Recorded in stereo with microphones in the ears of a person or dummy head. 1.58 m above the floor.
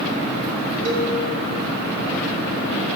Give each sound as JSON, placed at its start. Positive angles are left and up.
{"t": 0.8, "sound": "a cowbell", "side_deg": -75, "distance_m": 6.0}